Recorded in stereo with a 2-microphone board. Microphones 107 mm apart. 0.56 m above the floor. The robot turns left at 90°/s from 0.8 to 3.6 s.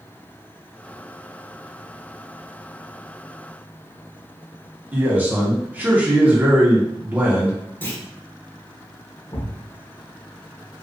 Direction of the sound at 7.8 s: 20° left (ahead or behind).